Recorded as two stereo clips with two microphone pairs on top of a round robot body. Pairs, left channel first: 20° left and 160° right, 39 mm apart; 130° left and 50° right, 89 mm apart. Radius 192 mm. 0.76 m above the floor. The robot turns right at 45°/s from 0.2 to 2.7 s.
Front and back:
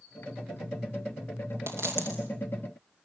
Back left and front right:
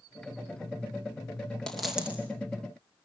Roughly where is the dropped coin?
Behind right.